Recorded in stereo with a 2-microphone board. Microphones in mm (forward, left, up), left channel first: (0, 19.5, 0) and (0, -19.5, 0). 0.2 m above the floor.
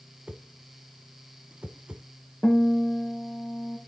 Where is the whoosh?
30° right (ahead or behind), 0.6 m.